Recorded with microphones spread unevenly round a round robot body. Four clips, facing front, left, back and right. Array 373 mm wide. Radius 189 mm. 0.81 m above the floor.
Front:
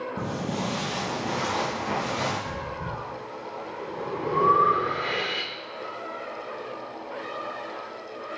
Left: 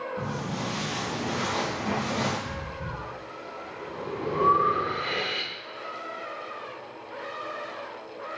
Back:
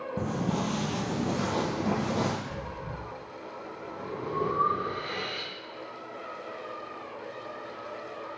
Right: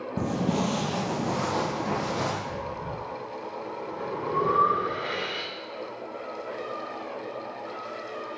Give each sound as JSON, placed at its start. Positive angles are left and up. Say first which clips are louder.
{"t": 0.2, "sound": "footsteps", "louder": "right 5 dB, back 2 dB", "azimuth_deg": -90, "distance_m": 1.1}
{"t": 2.5, "sound": "breathing", "louder": "right 3 dB, front 5 dB", "azimuth_deg": 25, "distance_m": 1.3}